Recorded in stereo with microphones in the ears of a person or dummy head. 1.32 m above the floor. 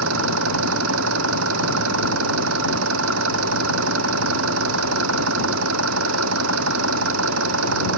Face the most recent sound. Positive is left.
turn(degrees=-90)